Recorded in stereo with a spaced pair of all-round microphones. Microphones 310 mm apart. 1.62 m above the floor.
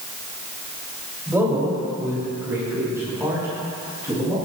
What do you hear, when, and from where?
1.3 s a man speaking: 10° right (ahead or behind), 3 m